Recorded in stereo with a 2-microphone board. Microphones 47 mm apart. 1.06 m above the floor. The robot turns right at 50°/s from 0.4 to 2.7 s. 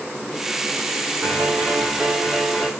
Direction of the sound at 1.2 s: 80° right.